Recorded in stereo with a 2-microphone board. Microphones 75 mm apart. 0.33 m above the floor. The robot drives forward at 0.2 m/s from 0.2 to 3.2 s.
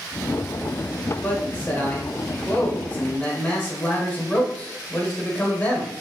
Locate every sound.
1.2 s a man speaking: 20° left (ahead or behind), 0.9 m